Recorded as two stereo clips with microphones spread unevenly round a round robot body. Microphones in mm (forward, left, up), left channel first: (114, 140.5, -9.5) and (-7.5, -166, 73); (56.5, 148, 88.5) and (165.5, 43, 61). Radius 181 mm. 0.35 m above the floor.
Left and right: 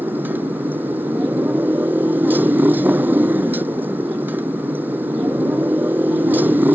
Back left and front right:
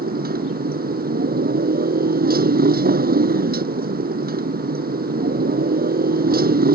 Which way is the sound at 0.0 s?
30° right.